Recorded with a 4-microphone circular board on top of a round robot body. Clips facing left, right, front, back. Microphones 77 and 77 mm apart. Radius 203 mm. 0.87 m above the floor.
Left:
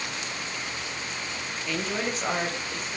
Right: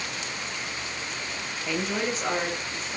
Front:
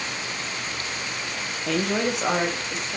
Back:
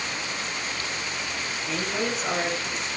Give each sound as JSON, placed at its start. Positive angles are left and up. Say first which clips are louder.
{"t": 1.7, "sound": "a woman speaking", "louder": "right 2 dB, front 5 dB", "azimuth_deg": -10, "distance_m": 0.6}